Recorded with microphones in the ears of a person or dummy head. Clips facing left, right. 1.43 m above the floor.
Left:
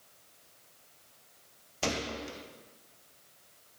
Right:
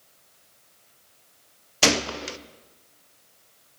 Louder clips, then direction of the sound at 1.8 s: Right 9 dB; 70° right (ahead or behind).